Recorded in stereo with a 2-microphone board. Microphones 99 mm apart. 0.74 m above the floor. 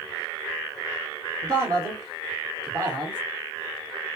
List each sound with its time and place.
1.4 s a man speaking: 45° right (ahead or behind), 2.0 m